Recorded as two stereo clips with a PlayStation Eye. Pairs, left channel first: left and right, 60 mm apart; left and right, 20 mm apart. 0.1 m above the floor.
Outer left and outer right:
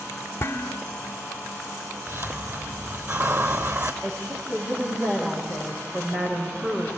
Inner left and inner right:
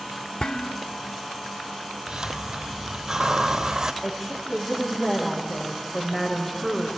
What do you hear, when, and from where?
0.4 s dishes clattering: 45° left (ahead or behind), 1.3 m
2.1 s a hiss: 40° right (ahead or behind), 1.3 m
4.0 s a woman speaking: 20° right (ahead or behind), 7.5 m